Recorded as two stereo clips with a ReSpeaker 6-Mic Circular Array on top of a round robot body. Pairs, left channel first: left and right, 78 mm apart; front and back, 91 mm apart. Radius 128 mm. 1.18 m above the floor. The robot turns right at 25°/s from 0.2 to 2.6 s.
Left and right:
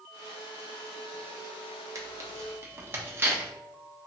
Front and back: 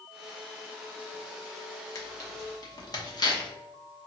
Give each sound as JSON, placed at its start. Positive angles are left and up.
{"t": 1.9, "sound": "tearing paper", "azimuth_deg": -50, "distance_m": 0.9}